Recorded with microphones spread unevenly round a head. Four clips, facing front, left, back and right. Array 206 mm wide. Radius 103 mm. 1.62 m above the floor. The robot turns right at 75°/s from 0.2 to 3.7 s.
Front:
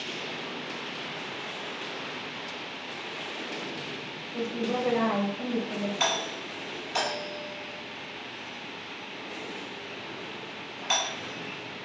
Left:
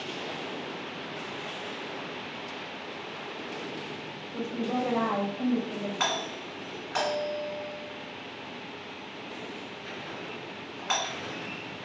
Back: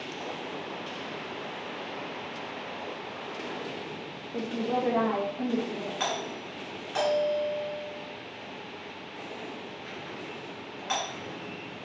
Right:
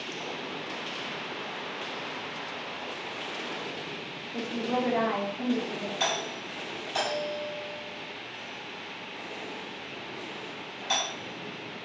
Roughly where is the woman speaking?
Behind.